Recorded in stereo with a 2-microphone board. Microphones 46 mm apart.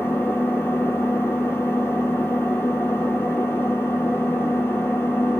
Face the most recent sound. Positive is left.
turn(degrees=65)  # may be behind; listen again after turning